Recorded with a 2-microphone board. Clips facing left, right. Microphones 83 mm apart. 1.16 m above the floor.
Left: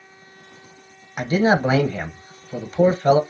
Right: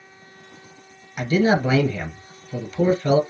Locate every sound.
1.2 s a man speaking: 35° left (ahead or behind), 0.8 m